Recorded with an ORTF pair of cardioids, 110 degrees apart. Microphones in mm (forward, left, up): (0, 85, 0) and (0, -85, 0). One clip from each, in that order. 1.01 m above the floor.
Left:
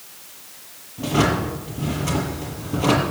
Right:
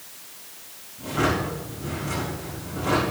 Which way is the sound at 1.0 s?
65° left.